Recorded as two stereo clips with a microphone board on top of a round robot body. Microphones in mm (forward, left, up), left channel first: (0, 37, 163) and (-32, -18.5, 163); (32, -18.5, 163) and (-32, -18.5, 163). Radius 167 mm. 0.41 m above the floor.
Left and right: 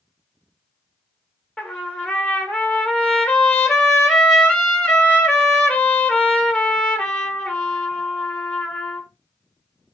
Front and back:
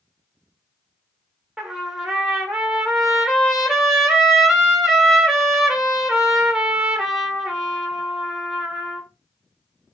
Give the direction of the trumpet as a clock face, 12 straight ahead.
8 o'clock.